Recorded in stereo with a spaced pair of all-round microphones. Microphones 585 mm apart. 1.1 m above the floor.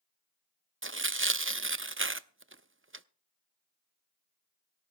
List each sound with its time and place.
0.8 s tearing paper: 20° right (ahead or behind), 0.5 m